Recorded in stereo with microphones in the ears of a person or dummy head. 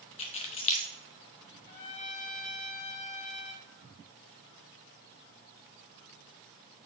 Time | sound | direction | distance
0.2 | keys jangling | 35° left (ahead or behind) | 1.2 m
1.7 | a trumpet | 35° left (ahead or behind) | 1.5 m